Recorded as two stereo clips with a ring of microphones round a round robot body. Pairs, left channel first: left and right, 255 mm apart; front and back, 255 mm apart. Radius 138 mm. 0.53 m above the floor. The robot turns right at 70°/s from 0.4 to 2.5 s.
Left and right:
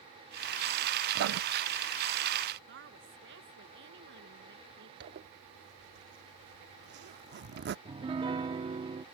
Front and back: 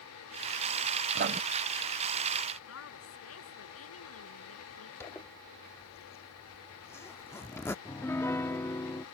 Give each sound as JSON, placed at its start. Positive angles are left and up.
{"t": 1.1, "sound": "writing", "azimuth_deg": -135}
{"t": 2.7, "sound": "a woman speaking", "azimuth_deg": -35}
{"t": 5.0, "sound": "a zipper", "azimuth_deg": -75}
{"t": 7.8, "sound": "a piano", "azimuth_deg": -65}